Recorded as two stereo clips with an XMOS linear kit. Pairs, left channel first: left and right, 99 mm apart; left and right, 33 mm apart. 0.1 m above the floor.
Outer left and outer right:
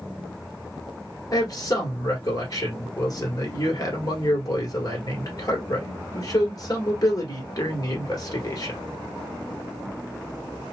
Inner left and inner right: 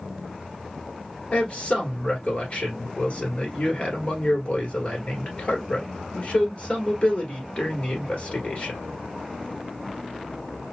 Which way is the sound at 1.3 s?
40° left (ahead or behind).